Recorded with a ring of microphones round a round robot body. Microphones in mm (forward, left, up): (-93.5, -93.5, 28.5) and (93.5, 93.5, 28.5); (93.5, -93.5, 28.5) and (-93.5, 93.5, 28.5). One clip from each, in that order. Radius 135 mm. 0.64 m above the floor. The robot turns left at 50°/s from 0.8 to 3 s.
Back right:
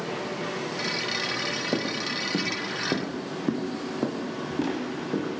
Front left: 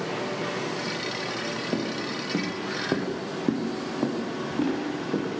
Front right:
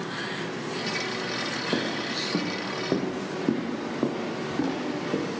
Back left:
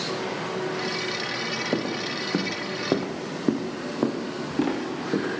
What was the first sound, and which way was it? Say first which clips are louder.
Footsteps: back right 2 dB, even; 175° left.